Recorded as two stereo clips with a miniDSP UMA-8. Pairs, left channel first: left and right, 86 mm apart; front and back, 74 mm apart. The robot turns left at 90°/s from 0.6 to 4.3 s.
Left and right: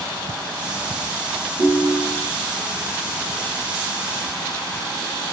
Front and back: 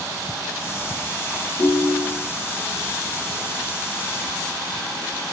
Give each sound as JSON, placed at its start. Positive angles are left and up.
{"t": 1.6, "sound": "a ringtone", "azimuth_deg": -80, "distance_m": 1.2}